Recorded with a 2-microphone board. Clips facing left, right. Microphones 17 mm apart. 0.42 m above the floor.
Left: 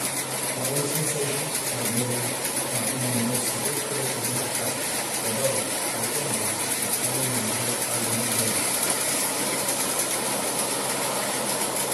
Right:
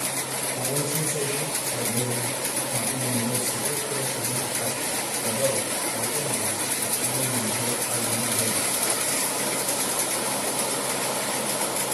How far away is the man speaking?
About 3 m.